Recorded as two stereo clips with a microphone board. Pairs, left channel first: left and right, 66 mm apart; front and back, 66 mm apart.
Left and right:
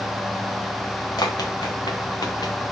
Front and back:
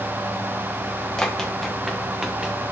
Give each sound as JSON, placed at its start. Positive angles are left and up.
{"t": 1.2, "sound": "running footsteps", "azimuth_deg": 80, "distance_m": 1.7}